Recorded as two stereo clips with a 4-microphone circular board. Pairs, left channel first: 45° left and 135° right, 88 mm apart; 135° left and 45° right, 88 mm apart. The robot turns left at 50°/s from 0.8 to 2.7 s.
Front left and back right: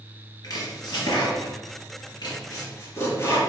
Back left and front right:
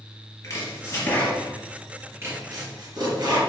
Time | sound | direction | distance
0.4 | chopping | 85° left | 3 m